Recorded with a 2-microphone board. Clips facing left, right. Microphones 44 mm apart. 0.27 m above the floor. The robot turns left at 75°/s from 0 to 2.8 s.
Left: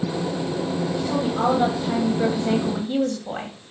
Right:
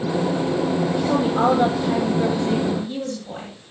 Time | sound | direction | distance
1.0 | a woman speaking | 110° right | 1.6 m